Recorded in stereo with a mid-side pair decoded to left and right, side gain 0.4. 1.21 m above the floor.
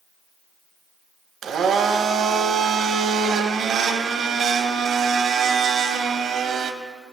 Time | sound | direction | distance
1.4 | a blender | 70° right | 0.8 m